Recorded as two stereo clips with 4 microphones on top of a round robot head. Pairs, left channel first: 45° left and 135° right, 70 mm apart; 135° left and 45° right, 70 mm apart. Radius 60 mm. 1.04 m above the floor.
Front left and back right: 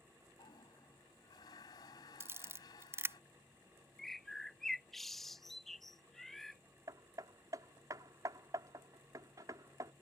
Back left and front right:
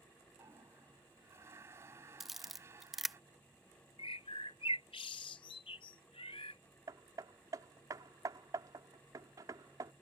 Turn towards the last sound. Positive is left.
turn(degrees=-90)